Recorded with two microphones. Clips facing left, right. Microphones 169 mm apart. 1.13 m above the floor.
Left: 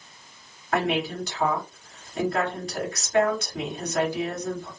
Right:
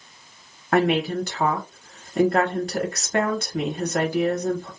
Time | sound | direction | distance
0.7 | a woman speaking | 60° right (ahead or behind) | 1.3 m